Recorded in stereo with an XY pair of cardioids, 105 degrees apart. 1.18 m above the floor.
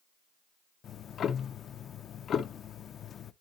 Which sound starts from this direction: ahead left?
Ticking, at 0.8 s.